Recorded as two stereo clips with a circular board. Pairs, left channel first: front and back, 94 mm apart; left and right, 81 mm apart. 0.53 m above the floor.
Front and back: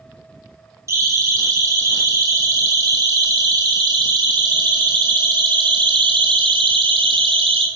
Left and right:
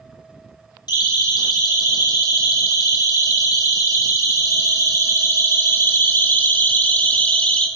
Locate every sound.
0.9 s a siren: 125° left, 5.5 m; by 7.7 s 165° left, 3 m